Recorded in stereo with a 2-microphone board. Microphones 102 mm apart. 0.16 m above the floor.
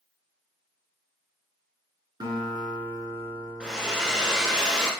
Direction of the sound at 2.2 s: 50° right (ahead or behind).